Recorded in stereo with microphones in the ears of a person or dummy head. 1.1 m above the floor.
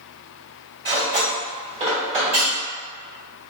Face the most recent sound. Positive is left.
turn(degrees=-25)  # may be behind; listen again after turning